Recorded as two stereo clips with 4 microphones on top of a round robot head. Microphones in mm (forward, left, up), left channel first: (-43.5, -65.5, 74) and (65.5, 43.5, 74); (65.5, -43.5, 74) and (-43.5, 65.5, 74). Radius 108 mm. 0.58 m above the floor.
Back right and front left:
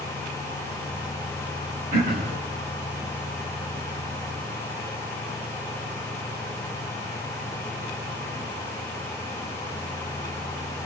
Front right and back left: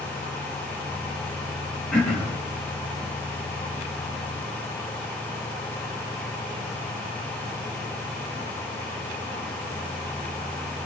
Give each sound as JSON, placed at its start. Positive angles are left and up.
{"t": 1.9, "sound": "throat clearing", "azimuth_deg": 40, "distance_m": 4.5}